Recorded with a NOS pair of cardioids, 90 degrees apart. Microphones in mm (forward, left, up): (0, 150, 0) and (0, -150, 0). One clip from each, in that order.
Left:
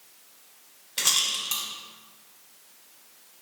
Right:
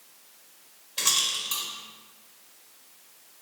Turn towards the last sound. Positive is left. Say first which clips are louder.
# left 1 dB
turn(degrees=25)